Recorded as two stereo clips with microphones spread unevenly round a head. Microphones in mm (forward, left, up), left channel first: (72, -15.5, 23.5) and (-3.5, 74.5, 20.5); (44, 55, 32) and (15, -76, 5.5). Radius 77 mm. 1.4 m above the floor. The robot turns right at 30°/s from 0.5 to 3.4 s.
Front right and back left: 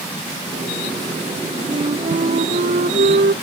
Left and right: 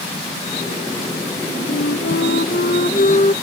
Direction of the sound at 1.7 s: 85° left.